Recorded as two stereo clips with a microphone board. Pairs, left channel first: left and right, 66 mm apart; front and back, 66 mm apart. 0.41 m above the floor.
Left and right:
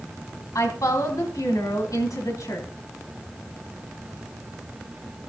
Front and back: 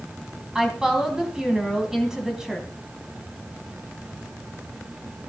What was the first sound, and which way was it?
A woman speaking, 100° left.